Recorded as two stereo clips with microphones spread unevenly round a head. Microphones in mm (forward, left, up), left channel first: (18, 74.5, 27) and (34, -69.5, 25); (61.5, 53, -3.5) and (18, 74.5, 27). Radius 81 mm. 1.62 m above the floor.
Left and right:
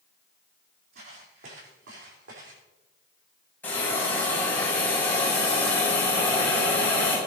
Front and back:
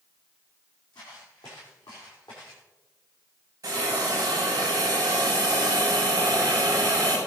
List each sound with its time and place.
0.9 s footsteps: 60° right, 5 m; by 2.6 s 80° right, 5.5 m
3.6 s a hiss: 175° left, 6 m